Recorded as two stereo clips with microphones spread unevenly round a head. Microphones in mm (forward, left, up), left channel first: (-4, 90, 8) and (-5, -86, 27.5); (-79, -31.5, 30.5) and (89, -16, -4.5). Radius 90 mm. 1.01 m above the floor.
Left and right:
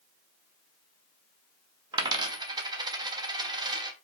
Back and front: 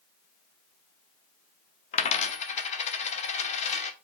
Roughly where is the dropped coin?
Behind right.